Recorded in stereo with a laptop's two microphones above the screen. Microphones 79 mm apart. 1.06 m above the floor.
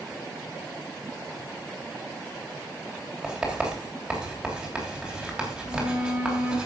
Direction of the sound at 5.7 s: 15° right (ahead or behind).